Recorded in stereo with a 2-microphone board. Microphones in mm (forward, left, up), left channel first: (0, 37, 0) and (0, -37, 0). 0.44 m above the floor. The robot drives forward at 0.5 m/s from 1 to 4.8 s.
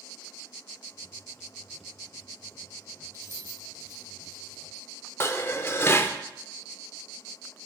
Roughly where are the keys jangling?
Right.